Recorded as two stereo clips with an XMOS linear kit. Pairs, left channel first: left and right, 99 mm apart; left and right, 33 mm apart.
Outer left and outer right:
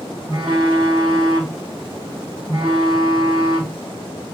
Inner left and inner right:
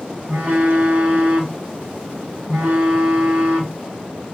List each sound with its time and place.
0.3 s a phone buzzing: 55° right (ahead or behind), 1.7 m